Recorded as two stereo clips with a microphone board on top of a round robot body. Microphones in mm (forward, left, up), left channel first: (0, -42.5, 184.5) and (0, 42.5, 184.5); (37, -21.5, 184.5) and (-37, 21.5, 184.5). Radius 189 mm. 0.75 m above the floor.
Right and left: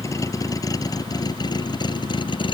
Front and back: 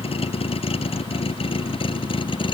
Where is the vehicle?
35° right; by 2.5 s 60° right.